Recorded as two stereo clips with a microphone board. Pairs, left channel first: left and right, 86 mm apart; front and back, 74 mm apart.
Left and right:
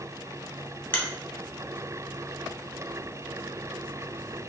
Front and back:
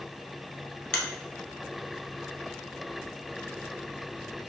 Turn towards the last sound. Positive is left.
turn(degrees=50)